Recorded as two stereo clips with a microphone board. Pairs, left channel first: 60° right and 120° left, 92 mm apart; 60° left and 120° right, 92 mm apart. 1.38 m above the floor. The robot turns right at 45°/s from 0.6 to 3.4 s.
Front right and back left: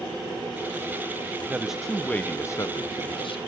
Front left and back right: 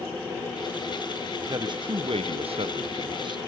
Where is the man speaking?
165° right, 0.9 m; by 3.4 s 80° right, 0.9 m.